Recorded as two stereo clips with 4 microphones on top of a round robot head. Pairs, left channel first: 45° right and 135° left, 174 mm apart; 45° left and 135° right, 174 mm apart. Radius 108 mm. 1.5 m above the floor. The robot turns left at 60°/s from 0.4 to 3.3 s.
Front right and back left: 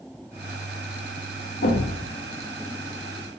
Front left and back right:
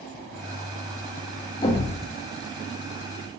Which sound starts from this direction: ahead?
A thud, at 1.6 s.